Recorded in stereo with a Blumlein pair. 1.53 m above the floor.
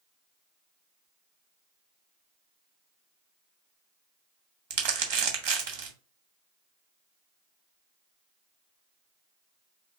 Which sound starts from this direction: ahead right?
Crumpling, at 4.7 s.